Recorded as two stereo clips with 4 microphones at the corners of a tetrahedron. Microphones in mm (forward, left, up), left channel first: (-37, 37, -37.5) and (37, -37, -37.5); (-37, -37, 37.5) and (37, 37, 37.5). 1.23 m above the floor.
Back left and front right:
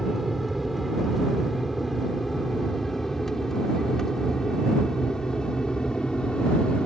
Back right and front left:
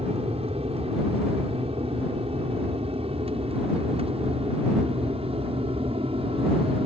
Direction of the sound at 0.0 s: 45° left.